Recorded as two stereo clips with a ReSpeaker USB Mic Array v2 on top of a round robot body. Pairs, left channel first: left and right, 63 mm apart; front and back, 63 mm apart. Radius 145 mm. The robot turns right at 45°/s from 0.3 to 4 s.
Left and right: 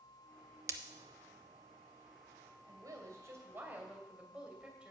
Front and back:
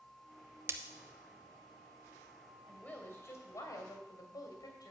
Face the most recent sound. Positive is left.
turn(degrees=-15)